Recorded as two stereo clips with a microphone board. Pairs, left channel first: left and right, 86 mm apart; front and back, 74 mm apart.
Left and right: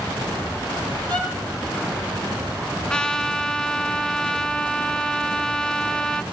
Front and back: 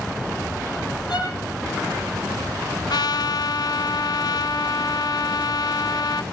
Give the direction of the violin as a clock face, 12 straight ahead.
11 o'clock.